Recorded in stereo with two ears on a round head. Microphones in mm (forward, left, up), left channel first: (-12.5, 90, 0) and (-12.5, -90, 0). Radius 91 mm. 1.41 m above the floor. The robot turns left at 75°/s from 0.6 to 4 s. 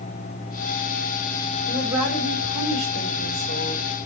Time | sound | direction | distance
1.7 | a woman speaking | 10° right | 4 m